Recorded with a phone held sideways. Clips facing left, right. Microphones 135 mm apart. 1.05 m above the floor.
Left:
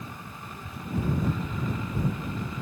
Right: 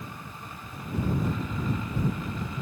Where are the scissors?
I don't hear scissors.